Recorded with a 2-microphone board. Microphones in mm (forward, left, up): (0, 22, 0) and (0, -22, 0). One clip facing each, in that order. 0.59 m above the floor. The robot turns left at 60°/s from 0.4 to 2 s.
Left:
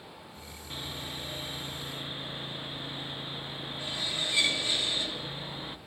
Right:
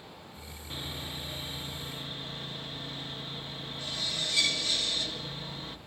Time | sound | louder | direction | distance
0.7 | sawing | even | centre (ahead or behind) | 0.7 m